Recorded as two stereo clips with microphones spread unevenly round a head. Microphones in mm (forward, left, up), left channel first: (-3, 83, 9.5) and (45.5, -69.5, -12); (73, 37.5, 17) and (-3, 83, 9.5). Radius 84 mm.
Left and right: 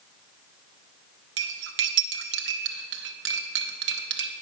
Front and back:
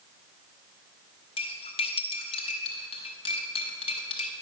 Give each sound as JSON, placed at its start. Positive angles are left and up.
{"t": 1.4, "sound": "cutlery clinking", "azimuth_deg": -65, "distance_m": 0.7}